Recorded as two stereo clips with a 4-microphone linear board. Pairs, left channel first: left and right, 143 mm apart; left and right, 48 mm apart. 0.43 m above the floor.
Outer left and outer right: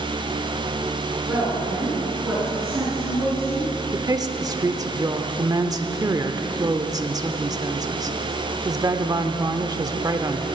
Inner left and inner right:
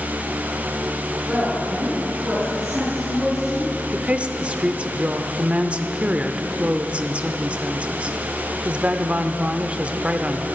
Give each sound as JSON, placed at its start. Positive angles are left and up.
{"t": 1.2, "sound": "a woman speaking", "side_deg": -15, "distance_m": 5.5}
{"t": 3.9, "sound": "a woman speaking", "side_deg": -25, "distance_m": 0.8}